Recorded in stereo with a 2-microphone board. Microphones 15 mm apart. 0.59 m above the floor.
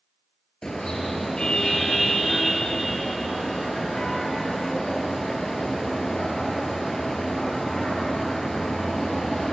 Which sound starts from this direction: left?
A car horn, at 0.6 s.